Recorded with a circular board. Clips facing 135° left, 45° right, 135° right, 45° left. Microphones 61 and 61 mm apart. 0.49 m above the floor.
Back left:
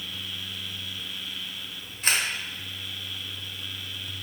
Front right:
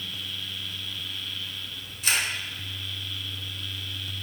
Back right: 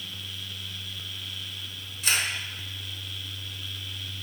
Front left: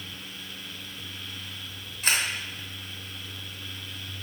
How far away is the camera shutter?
About 0.9 m.